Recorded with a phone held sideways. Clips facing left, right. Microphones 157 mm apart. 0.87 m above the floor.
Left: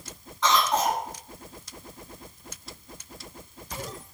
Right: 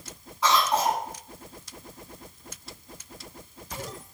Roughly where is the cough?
Centre.